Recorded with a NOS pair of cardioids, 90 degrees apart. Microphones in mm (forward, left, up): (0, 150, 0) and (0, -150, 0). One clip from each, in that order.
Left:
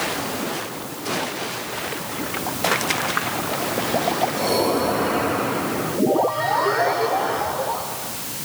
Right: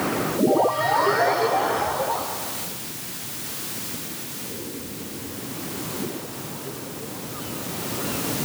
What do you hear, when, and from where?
Only background noise.